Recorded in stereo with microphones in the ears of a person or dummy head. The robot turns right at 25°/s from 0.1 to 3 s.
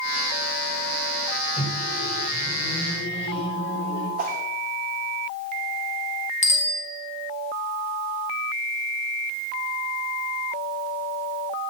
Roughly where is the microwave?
Ahead left.